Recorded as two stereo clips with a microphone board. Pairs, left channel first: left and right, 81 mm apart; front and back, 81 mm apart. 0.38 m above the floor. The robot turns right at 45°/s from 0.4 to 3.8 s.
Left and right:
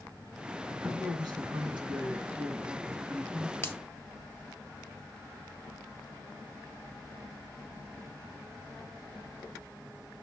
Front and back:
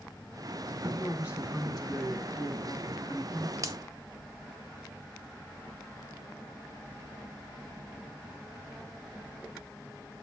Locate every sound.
0.7 s a man speaking: 130° right, 4 m; by 3.5 s 5° right, 4 m
3.6 s a finger snap: 145° left, 1.2 m; by 3.8 s 150° left, 1.2 m